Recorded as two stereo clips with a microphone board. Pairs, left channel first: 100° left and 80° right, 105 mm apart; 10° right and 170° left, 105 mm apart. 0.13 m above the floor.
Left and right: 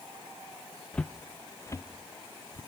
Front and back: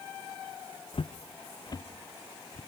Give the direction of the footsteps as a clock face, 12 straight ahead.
11 o'clock.